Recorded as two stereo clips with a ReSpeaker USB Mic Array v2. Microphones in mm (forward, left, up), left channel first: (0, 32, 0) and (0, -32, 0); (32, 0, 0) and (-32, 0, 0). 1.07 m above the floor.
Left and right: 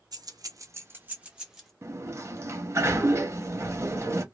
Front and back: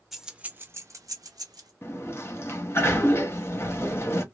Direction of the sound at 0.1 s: 90° right.